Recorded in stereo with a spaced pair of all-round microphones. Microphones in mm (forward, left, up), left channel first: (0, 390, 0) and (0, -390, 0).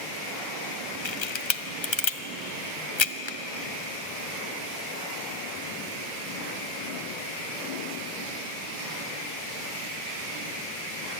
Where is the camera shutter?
35° left (ahead or behind), 0.7 m.